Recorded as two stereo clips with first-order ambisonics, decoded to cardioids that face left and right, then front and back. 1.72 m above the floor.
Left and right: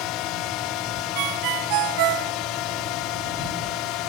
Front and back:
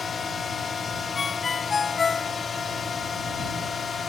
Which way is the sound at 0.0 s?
70° left.